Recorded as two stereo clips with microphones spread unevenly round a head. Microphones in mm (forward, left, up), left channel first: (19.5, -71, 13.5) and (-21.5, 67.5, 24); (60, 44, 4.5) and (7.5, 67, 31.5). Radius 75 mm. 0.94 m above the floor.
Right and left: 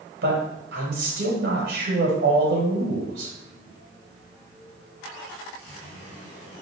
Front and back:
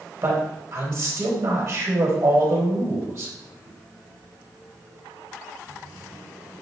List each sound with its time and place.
0.2 s a man speaking: 115° left, 4 m